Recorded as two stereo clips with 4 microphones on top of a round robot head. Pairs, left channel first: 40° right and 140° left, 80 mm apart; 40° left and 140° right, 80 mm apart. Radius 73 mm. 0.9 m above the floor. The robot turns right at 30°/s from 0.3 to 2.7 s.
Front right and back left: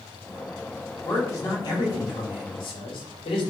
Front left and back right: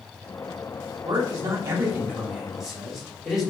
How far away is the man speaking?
About 4 m.